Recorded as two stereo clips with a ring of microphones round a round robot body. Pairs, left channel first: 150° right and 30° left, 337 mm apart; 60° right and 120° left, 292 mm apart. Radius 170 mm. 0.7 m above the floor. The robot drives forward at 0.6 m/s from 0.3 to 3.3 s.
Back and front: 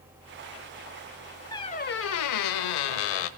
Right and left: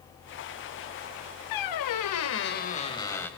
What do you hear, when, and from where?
1.5 s a squeak: 70° right, 0.7 m; by 3.3 s 145° right, 1.1 m